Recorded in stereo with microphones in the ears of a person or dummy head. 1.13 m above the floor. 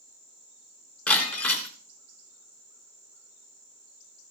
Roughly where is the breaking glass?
Centre.